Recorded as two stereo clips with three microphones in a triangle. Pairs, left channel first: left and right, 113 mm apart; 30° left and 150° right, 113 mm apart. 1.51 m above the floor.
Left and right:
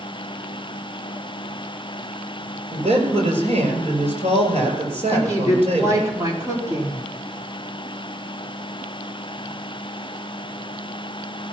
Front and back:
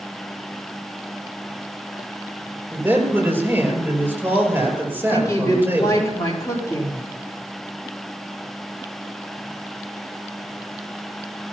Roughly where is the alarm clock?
No alarm clock in this recording.